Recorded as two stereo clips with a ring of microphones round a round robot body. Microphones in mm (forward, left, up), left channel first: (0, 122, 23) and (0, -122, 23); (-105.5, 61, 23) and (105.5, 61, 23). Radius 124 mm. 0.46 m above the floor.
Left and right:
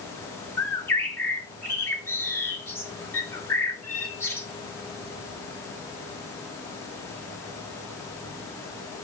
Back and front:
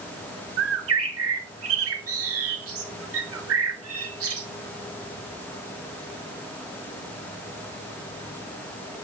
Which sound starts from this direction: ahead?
A bird, at 0.6 s.